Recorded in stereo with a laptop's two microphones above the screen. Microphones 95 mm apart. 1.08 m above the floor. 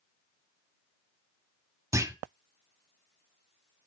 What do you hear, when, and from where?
1.9 s a clunk: 30° right (ahead or behind), 1.0 m